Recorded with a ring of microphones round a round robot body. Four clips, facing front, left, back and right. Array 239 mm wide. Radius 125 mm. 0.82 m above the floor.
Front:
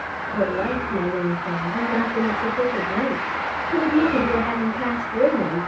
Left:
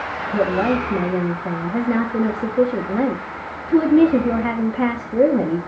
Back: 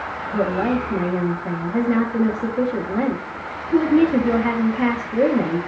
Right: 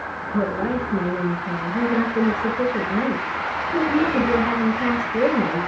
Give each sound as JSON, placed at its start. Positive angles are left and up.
{"t": 0.3, "sound": "a woman speaking", "azimuth_deg": 110, "distance_m": 5.0}